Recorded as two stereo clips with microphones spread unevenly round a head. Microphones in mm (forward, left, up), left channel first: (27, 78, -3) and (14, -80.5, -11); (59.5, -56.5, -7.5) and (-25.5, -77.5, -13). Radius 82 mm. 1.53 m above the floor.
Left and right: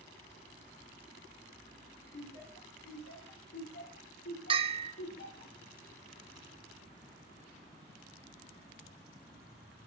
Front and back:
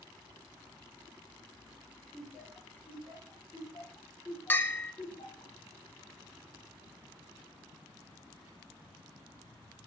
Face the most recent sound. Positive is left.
turn(degrees=-45)